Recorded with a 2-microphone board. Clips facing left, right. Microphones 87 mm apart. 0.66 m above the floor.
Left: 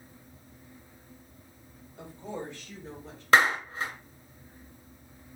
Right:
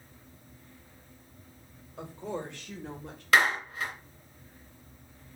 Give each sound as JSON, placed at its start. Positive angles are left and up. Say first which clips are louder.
{"t": 2.0, "sound": "a woman speaking", "louder": "right 2 dB", "side_deg": -70, "distance_m": 3.5}
{"t": 3.3, "sound": "a clap", "louder": "left 2 dB", "side_deg": 25, "distance_m": 2.5}